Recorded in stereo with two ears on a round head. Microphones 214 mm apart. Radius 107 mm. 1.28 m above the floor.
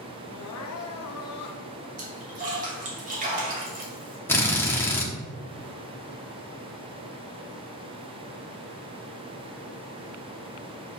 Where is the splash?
35° right (ahead or behind), 2 m.